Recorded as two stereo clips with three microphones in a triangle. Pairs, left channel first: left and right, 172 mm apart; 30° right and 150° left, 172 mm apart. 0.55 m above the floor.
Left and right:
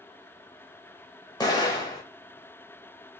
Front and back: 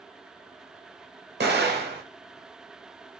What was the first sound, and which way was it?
An explosion, 155° left.